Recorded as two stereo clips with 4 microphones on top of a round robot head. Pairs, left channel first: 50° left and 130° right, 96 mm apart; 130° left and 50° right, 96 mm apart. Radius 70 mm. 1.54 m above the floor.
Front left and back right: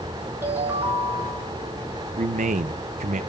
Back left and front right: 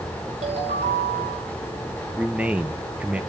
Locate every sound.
0.4 s a ringtone: 65° right, 4.5 m
2.2 s a man speaking: 125° right, 0.7 m